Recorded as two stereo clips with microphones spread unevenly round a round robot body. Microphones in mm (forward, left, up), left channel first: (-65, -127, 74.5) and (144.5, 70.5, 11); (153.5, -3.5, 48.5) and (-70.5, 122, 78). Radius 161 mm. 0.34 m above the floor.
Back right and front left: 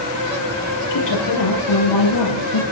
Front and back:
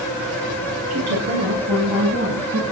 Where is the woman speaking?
170° right, 8 m; by 2.6 s 160° right, 10 m.